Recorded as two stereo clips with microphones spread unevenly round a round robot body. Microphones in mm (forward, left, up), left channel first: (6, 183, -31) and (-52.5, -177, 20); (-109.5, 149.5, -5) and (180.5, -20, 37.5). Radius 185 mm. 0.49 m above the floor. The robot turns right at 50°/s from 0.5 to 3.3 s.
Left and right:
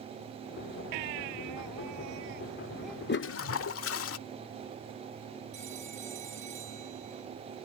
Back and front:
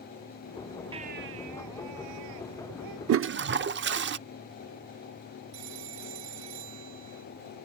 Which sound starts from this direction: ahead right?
A phone ringing, at 5.5 s.